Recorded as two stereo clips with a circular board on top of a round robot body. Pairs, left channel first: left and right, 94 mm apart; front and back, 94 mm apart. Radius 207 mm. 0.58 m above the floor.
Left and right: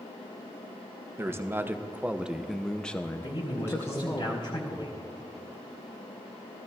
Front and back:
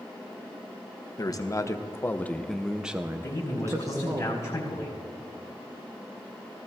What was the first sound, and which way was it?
A man speaking, 35° right.